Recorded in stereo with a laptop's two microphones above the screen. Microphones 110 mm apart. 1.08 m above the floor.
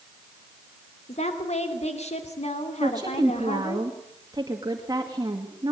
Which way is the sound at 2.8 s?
40° right (ahead or behind).